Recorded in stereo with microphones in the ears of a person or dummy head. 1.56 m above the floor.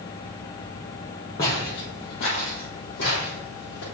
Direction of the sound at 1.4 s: 20° left (ahead or behind).